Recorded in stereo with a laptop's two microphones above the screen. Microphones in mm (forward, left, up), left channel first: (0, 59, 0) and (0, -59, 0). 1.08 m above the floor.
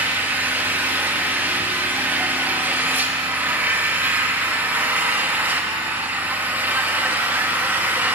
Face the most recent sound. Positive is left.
turn(degrees=-15)  # may be behind; listen again after turning